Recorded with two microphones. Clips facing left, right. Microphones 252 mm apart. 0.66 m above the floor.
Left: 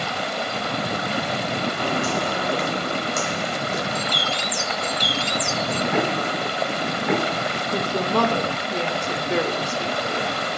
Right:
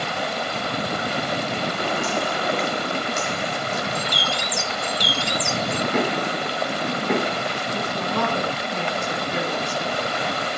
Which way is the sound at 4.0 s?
10° right (ahead or behind).